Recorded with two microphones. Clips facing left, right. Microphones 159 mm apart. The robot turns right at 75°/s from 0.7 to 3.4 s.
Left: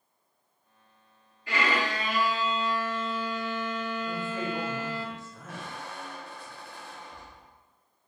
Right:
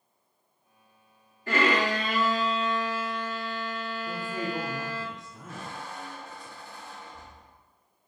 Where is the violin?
120° right, 0.6 m; by 5.1 s 25° left, 0.6 m.